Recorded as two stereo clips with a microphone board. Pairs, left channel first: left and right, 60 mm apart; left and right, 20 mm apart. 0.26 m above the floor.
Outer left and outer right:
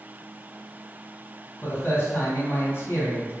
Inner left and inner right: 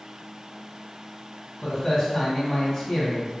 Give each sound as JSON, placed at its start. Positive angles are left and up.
{"t": 1.6, "sound": "a man speaking", "side_deg": 40, "distance_m": 1.7}